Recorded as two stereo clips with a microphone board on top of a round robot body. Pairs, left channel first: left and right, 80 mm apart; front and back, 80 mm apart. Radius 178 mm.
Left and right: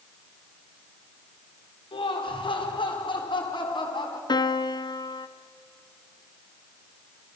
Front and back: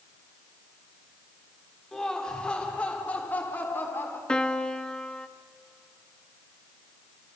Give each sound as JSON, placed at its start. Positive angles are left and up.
{"t": 1.9, "sound": "laughter", "azimuth_deg": 85, "distance_m": 3.5}
{"t": 4.3, "sound": "a piano", "azimuth_deg": 80, "distance_m": 1.0}